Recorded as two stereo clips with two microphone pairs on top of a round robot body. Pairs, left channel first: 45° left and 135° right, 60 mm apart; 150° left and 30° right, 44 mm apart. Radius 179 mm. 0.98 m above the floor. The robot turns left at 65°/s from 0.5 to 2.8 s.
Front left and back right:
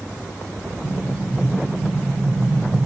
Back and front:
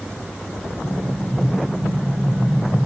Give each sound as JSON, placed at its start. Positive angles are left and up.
{"t": 0.8, "sound": "an explosion", "azimuth_deg": 35, "distance_m": 1.0}